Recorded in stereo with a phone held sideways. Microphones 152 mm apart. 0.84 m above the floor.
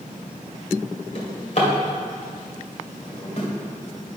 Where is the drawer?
50° left (ahead or behind), 2 m.